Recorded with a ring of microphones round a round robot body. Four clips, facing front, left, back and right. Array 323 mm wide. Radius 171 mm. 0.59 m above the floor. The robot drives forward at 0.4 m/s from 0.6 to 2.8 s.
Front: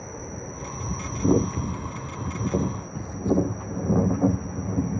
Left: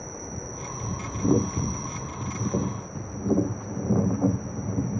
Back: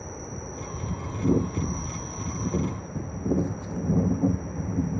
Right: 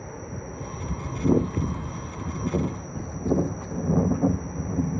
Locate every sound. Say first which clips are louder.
0.0 s an insect: even, front 1 dB; 65° left; by 5.0 s 120° left